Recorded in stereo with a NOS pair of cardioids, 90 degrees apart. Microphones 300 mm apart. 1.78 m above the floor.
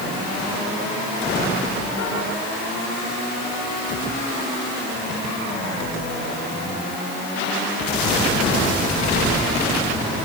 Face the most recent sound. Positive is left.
No sound to turn to.